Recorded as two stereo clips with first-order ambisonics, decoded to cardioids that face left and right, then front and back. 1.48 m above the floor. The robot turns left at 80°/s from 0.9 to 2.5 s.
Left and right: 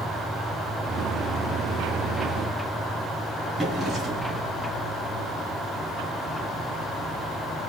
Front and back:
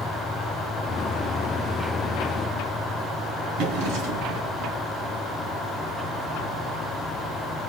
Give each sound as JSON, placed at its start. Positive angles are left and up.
{"t": 3.6, "sound": "a drawer", "azimuth_deg": -170, "distance_m": 3.0}